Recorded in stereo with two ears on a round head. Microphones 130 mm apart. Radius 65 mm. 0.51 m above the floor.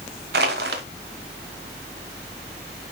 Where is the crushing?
75° right (ahead or behind), 1.1 m.